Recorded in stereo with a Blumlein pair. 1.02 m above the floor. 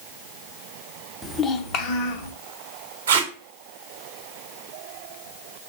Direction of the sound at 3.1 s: 65° right.